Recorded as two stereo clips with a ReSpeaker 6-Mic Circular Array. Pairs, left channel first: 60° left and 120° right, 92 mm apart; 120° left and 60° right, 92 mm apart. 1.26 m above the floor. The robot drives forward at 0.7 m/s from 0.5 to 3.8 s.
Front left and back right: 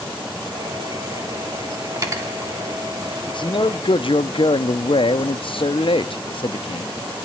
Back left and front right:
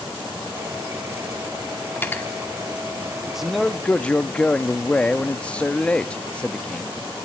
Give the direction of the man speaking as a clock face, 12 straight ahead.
11 o'clock.